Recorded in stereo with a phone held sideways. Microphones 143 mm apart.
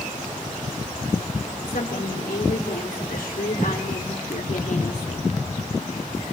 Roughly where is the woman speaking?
Left.